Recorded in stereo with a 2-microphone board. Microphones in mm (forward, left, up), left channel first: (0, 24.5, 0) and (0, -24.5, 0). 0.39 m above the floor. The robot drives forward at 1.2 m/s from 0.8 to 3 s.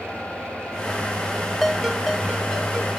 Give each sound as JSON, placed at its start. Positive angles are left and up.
{"t": 1.6, "sound": "a ringtone", "side_deg": 0, "distance_m": 0.5}